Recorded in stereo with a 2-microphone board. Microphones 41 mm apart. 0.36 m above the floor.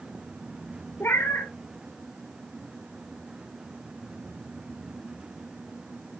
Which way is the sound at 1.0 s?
65° left (ahead or behind).